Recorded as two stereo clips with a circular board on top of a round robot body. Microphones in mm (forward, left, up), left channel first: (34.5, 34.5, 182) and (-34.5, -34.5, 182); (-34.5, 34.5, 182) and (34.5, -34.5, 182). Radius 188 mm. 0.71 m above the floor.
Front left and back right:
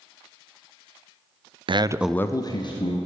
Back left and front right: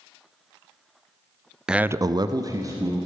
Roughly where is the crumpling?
I don't hear crumpling.